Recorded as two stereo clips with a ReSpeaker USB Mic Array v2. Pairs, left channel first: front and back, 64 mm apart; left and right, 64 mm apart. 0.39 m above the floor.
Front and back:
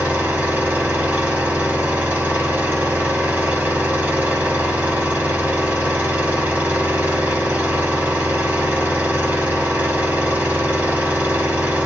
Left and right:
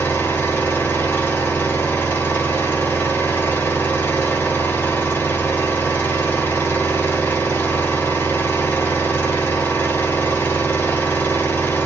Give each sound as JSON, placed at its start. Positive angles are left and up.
{"t": 0.0, "sound": "an engine running", "azimuth_deg": 125, "distance_m": 1.6}